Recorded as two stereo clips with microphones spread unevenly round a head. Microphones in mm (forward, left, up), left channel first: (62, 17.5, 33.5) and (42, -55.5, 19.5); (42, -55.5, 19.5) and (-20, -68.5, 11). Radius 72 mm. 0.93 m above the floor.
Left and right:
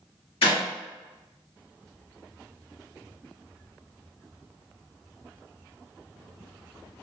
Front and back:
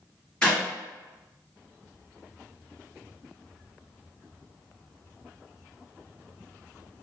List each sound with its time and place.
0.4 s a clap: 95° left, 1.3 m